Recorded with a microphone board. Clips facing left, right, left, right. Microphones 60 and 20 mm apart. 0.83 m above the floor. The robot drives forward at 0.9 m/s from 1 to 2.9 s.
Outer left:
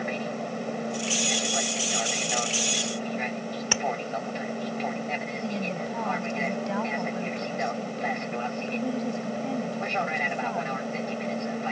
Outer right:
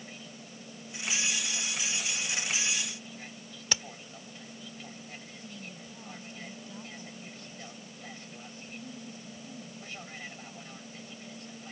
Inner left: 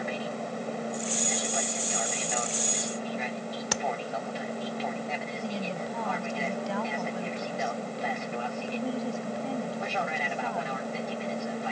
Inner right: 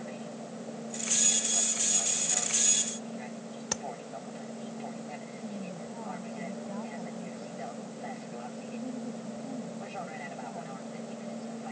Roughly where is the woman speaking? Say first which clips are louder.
Outer left 15 dB, inner left 7 dB; left.